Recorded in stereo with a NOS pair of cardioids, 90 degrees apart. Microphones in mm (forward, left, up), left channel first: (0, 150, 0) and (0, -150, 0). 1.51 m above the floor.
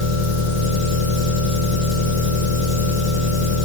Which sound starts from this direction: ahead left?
An engine running, at 0.0 s.